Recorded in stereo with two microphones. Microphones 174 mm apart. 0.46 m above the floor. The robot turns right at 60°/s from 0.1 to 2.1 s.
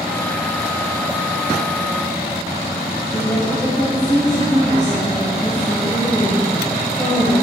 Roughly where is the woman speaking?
Centre.